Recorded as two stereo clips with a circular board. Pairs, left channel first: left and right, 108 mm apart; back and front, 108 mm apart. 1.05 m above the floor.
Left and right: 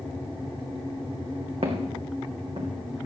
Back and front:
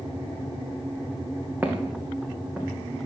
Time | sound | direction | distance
1.6 | footsteps | 75° right | 3.5 m